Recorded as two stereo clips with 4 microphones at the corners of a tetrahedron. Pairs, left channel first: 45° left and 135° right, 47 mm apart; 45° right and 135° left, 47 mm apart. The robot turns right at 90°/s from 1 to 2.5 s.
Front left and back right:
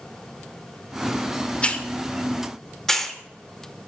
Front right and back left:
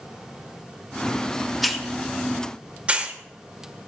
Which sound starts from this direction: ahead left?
A hiss, at 1.6 s.